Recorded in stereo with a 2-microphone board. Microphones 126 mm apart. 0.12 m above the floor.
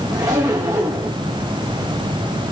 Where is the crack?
I don't hear a crack.